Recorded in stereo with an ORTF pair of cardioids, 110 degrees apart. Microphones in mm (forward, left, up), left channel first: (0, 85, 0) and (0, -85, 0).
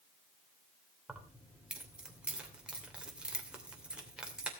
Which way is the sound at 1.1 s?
5° right.